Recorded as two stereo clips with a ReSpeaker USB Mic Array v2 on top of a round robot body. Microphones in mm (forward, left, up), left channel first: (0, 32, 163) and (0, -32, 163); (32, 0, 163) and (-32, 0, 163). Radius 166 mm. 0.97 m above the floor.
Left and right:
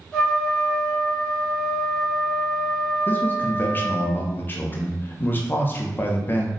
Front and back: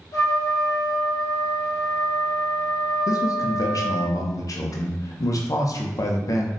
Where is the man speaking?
30° left, 0.5 m.